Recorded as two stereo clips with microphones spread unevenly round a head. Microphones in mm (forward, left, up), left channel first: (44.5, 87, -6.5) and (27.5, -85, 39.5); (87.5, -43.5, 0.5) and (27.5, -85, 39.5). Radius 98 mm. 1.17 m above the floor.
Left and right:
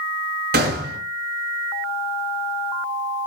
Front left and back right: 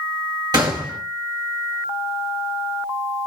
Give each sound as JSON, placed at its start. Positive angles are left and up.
{"t": 0.5, "sound": "a gunshot", "azimuth_deg": -135, "distance_m": 4.5}